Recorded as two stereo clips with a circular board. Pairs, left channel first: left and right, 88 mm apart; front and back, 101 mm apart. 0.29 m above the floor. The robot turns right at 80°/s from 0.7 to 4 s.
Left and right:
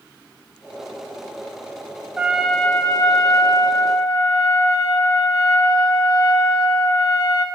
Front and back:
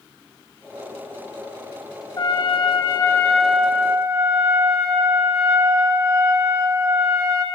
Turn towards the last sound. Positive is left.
turn(degrees=130)